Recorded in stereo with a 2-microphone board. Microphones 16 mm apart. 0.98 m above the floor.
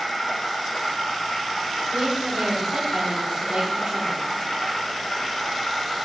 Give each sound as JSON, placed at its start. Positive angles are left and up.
{"t": 0.0, "sound": "an insect", "side_deg": 50, "distance_m": 3.5}
{"t": 1.9, "sound": "a woman speaking", "side_deg": -75, "distance_m": 2.5}